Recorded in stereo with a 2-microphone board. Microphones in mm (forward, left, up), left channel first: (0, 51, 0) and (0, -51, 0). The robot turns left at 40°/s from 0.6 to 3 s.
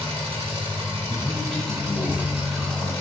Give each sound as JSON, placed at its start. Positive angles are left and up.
{"t": 0.0, "sound": "an engine running", "azimuth_deg": -100, "distance_m": 1.9}
{"t": 1.1, "sound": "a man speaking", "azimuth_deg": 25, "distance_m": 0.9}